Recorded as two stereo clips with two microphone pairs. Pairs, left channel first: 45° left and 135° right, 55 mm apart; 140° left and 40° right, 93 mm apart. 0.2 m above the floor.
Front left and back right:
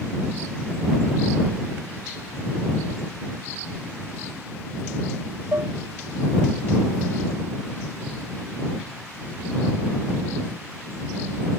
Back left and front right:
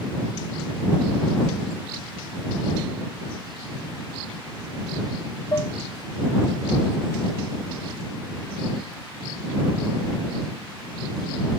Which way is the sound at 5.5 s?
170° right.